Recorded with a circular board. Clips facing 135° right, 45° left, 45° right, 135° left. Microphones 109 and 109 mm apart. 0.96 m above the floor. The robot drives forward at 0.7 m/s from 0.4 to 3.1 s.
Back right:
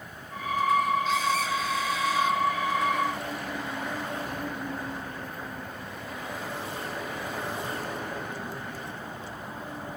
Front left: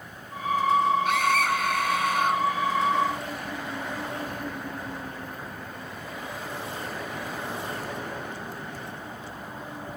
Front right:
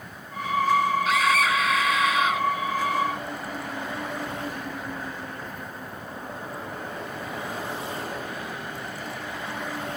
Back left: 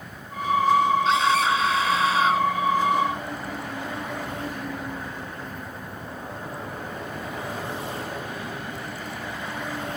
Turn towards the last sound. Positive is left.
turn(degrees=80)